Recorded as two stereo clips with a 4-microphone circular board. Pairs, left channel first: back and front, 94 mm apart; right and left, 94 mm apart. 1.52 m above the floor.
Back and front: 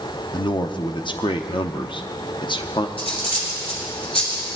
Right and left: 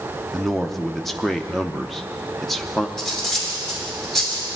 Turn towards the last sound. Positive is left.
turn(degrees=180)